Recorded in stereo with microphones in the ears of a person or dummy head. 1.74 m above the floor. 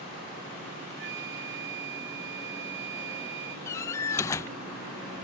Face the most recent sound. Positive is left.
turn(degrees=15)  # may be behind; listen again after turning